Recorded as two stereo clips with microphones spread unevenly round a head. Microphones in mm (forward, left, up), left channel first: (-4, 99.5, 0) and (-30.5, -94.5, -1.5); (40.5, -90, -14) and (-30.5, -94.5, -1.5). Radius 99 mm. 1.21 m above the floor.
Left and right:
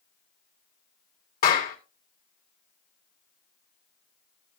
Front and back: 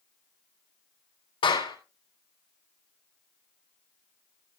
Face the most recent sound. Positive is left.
turn(degrees=30)